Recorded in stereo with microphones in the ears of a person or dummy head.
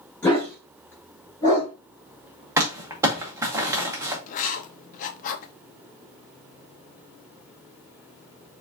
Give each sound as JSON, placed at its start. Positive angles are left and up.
{"t": 0.2, "sound": "a dog barking", "side_deg": 15, "distance_m": 2.0}
{"t": 2.6, "sound": "crumpling", "side_deg": -10, "distance_m": 0.8}
{"t": 4.3, "sound": "writing", "side_deg": 40, "distance_m": 0.6}